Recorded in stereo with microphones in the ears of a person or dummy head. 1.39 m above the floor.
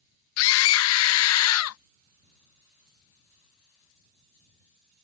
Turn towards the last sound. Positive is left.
turn(degrees=85)